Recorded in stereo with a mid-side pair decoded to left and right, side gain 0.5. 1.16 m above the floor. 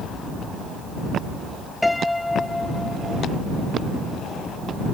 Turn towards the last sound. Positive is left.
turn(degrees=10)